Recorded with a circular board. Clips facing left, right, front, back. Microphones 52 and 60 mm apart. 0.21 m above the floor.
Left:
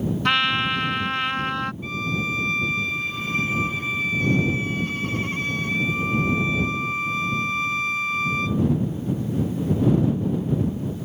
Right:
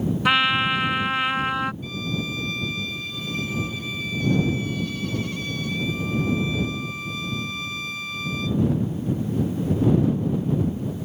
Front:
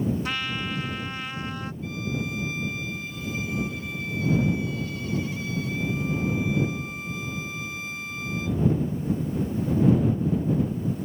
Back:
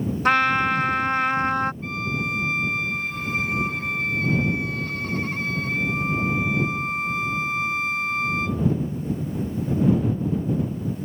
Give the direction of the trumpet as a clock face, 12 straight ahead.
6 o'clock.